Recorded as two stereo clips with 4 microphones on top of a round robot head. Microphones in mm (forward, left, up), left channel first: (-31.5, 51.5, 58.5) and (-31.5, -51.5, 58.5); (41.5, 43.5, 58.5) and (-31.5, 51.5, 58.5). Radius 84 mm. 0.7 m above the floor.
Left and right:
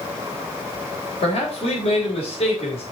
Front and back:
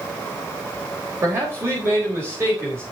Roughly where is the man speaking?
Behind left.